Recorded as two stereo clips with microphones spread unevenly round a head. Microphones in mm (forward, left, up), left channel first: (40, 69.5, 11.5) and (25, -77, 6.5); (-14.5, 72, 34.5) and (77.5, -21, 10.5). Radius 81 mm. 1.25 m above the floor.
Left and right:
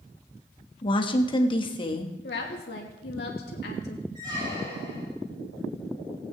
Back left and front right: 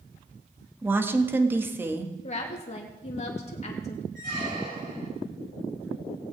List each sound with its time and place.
0.8 s a woman speaking: 30° left, 1.5 m
2.2 s a woman speaking: 100° left, 2.5 m
4.2 s a squeak: 35° right, 5.5 m